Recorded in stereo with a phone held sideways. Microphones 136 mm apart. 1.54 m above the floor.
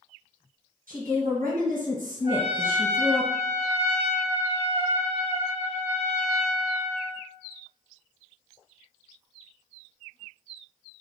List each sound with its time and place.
0.9 s a woman speaking: 80° right, 1.7 m
2.2 s a trumpet: 45° right (ahead or behind), 1.1 m